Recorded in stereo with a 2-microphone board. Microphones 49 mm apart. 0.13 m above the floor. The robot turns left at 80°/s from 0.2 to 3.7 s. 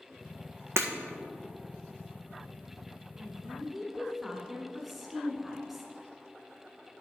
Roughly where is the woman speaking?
Centre.